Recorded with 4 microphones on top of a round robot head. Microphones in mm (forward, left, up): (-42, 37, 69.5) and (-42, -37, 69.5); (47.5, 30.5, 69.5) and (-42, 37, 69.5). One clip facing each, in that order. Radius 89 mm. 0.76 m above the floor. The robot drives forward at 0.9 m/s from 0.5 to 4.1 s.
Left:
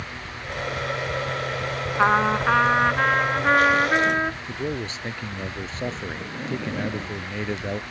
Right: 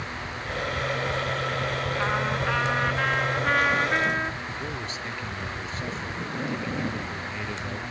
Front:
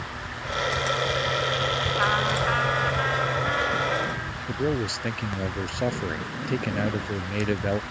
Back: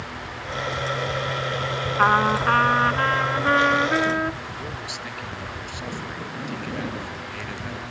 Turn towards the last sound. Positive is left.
turn(degrees=35)